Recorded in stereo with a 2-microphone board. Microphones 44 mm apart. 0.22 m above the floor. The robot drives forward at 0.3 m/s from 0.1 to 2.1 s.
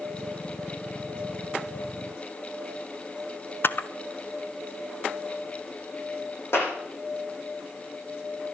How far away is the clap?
About 9 m.